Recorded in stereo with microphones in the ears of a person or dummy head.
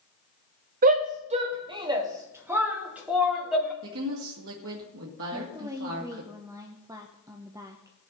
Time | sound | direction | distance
0.8 | a shout | 45° right (ahead or behind) | 1.5 m
3.8 | a woman speaking | 75° right (ahead or behind) | 2 m
5.3 | a woman speaking | 20° right (ahead or behind) | 0.7 m